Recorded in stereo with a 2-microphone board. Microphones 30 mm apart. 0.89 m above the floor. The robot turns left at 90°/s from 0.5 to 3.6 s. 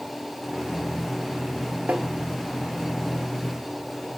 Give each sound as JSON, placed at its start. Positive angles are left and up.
{"t": 1.9, "sound": "tapping", "side_deg": -85, "distance_m": 1.6}